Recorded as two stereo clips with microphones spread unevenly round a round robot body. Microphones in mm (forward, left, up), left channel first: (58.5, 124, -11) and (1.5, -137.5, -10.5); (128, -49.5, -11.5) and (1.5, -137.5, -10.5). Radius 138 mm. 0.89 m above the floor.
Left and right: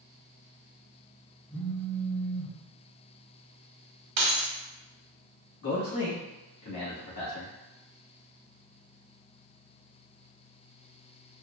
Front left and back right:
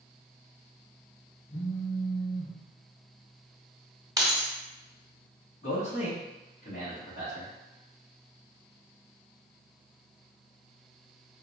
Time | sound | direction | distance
1.5 | a phone buzzing | 20° left | 0.7 m
4.2 | keys jangling | 75° right | 1.2 m
5.6 | a man speaking | 75° left | 1.2 m